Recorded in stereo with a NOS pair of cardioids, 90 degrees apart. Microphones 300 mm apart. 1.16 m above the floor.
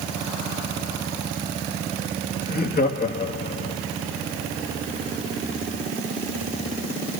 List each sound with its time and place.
2.5 s laughter: 35° left, 2 m